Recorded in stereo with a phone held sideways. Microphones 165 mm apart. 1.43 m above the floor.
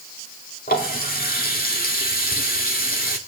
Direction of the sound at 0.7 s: 65° left (ahead or behind).